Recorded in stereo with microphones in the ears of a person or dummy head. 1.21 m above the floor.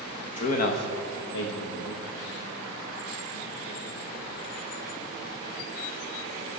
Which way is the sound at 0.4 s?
40° left (ahead or behind).